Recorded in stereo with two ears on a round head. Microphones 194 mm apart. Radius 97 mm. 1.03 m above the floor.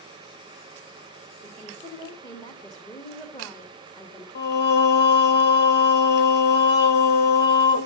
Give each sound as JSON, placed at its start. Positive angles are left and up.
{"t": 1.4, "sound": "a woman speaking", "side_deg": 15, "distance_m": 1.5}
{"t": 4.3, "sound": "singing", "side_deg": 50, "distance_m": 0.6}